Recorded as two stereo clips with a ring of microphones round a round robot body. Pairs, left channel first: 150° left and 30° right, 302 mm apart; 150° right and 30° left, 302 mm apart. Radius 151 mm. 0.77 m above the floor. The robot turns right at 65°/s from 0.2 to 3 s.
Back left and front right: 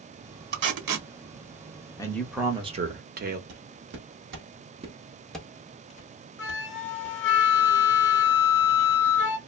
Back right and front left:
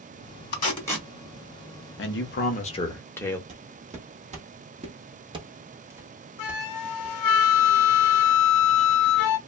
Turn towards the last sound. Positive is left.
turn(degrees=-160)